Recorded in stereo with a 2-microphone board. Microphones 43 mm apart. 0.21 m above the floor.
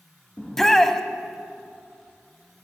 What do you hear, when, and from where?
0.4 s a shout: 10° left (ahead or behind), 1.0 m